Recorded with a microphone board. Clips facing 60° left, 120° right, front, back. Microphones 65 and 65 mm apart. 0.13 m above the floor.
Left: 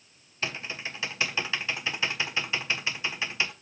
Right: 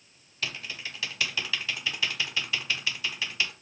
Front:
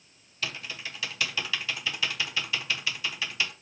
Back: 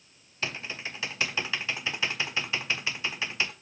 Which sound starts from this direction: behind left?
Typing on a keyboard, at 0.4 s.